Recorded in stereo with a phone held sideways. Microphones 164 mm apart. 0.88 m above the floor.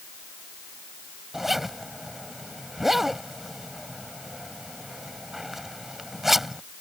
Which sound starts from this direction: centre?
A zipper, at 1.3 s.